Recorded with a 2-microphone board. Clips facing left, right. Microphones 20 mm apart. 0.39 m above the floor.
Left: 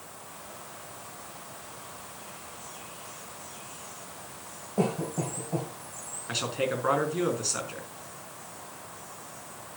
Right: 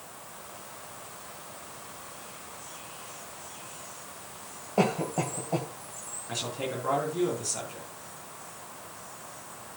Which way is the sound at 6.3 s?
35° left (ahead or behind).